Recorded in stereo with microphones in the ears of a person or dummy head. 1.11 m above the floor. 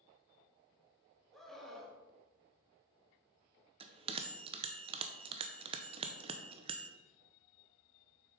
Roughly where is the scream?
Centre.